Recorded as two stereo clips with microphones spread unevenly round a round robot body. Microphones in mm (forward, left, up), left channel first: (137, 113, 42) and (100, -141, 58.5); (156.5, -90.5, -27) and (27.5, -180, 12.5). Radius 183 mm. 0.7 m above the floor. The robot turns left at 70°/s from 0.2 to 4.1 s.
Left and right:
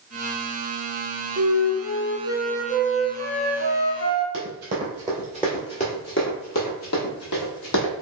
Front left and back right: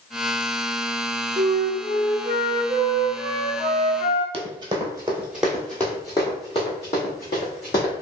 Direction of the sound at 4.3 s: 130° right.